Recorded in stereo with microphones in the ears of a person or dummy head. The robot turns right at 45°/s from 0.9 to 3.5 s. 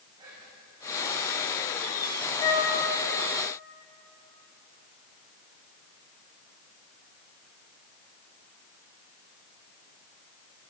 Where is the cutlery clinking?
No cutlery clinking in this recording.